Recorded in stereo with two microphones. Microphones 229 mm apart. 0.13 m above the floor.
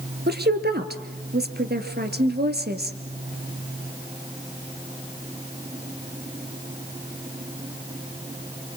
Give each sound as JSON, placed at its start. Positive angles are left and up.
{"t": 0.3, "sound": "a woman speaking", "side_deg": -45, "distance_m": 2.0}